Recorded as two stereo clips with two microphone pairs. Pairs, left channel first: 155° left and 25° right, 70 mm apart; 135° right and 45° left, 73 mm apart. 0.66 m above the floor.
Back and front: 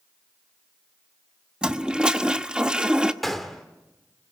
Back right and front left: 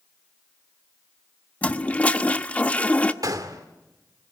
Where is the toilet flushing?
90° right, 0.9 m.